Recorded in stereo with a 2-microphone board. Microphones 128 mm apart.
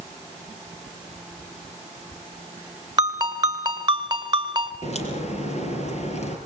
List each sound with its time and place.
3.0 s a ringtone: 30° right (ahead or behind), 1.6 m
4.8 s a crack: 60° left (ahead or behind), 4 m